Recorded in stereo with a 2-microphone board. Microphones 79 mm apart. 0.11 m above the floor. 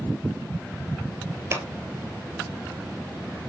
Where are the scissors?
40° right (ahead or behind), 1.1 m.